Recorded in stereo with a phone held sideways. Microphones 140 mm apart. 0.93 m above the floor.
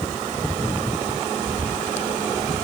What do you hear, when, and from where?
Only background noise.